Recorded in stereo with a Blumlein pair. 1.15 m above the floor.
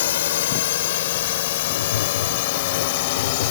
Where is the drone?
60° left; by 3.5 s 50° left.